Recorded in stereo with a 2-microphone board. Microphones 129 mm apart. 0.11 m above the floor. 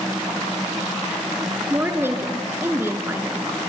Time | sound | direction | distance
1.7 | a woman speaking | 20° right (ahead or behind) | 1.4 m